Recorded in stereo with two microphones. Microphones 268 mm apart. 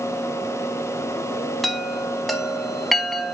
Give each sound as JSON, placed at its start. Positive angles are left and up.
{"t": 1.6, "sound": "a chime", "side_deg": 0, "distance_m": 0.7}